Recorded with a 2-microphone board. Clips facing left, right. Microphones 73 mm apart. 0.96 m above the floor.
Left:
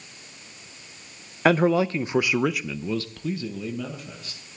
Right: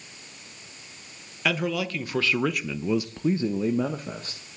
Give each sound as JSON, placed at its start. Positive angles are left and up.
{"t": 1.4, "sound": "a man speaking", "side_deg": 45, "distance_m": 0.9}